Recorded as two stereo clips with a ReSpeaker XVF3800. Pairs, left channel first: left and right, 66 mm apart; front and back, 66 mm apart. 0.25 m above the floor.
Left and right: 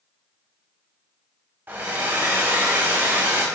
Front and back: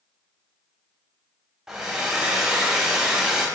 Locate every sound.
1.7 s a hair dryer: 110° right, 0.8 m